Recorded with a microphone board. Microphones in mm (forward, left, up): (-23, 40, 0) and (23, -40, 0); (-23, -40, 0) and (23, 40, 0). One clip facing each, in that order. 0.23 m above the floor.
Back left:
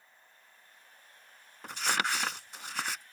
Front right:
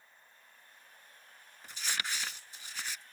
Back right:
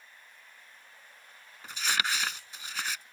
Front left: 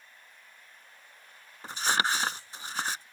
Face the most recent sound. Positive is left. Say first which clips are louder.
# back left 8 dB, front left 4 dB
turn(degrees=110)